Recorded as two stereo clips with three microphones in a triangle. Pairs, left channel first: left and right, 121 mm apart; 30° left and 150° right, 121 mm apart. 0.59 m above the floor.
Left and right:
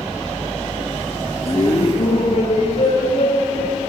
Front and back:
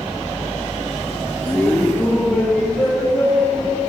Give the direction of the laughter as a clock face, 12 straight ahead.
9 o'clock.